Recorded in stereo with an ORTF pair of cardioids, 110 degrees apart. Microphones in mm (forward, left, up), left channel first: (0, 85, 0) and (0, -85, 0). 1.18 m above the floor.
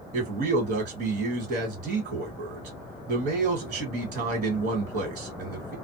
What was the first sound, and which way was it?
A man speaking, 55° right.